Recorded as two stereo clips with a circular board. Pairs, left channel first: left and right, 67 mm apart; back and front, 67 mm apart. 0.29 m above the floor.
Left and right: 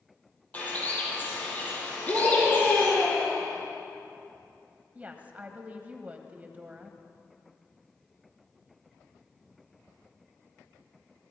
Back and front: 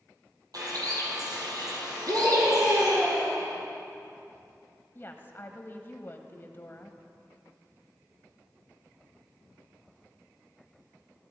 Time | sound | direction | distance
0.5 | a bird | 20° left | 4 m
2.1 | a scream | 20° left | 3 m
5.0 | a woman speaking | 145° right | 1.3 m